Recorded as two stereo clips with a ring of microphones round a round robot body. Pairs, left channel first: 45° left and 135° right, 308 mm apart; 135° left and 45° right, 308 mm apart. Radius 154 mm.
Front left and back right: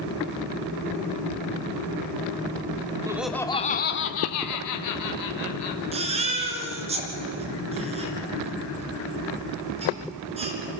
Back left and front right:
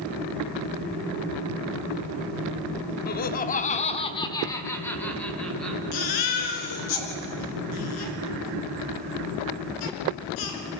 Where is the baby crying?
155° left, 3 m.